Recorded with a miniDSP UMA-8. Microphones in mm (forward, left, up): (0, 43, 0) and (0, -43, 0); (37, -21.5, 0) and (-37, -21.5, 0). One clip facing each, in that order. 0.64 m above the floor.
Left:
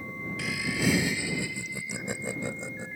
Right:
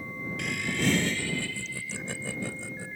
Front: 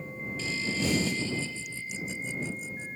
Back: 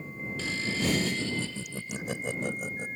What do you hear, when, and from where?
0.4 s laughter: 175° left; by 2.9 s 160° left